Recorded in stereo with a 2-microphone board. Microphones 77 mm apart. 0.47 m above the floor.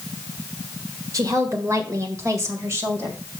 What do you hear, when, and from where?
1.1 s a woman speaking: 45° right (ahead or behind), 1.5 m; by 3.2 s 35° right (ahead or behind), 2.5 m